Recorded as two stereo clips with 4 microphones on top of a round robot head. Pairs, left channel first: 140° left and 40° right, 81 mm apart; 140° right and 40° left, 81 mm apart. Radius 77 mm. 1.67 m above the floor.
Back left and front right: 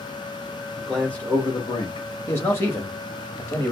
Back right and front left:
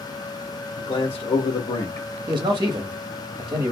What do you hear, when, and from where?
0.8 s a man speaking: 130° right, 1.3 m; by 2.1 s 160° left, 0.8 m
2.3 s a man speaking: 80° left, 0.8 m